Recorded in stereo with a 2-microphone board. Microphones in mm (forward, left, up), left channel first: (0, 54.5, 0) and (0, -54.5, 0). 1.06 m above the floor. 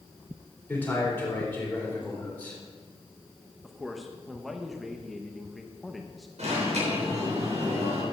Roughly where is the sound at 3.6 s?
Centre.